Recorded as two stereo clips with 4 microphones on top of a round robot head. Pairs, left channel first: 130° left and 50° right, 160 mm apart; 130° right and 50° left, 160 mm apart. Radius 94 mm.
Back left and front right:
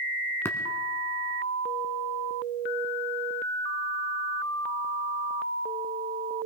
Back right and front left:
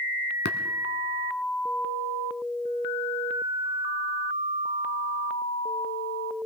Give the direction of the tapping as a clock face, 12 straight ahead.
5 o'clock.